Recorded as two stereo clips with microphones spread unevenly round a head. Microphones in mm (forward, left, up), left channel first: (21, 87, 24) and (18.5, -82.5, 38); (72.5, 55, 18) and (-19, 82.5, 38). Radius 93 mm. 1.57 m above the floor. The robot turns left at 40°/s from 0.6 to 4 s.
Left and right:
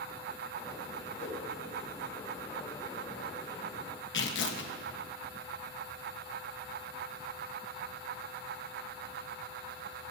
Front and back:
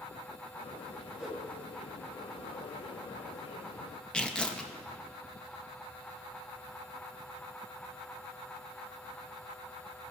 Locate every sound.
1.2 s a whoosh: 80° left, 2.5 m; by 1.4 s 70° left, 2.5 m
4.1 s tearing paper: 65° left, 1.3 m